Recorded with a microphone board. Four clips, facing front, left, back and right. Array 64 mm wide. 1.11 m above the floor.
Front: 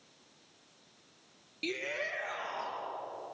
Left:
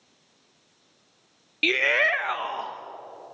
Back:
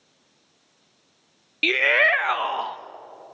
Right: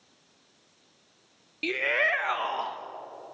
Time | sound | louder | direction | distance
1.6 | a shout | left 4 dB, back 18 dB | 145° left | 0.6 m